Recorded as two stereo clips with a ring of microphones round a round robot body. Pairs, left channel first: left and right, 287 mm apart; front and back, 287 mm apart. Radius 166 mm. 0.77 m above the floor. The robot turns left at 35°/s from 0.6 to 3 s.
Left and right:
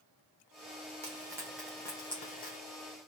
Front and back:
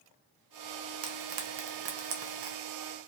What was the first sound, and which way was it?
Frying, 160° right.